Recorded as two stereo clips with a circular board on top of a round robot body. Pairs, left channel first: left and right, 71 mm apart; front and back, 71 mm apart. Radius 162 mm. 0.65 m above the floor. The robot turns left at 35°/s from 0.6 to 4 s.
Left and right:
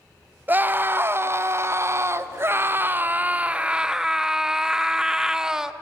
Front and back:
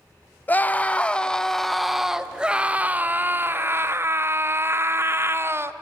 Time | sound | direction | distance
0.5 | a scream | 50° right | 0.8 m